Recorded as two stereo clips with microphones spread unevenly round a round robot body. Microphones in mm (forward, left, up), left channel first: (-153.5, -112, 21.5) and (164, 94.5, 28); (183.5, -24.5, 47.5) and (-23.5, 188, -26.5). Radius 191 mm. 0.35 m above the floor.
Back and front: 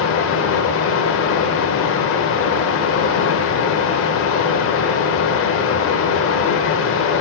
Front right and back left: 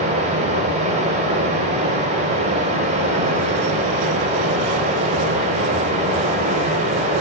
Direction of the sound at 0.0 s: 175° left.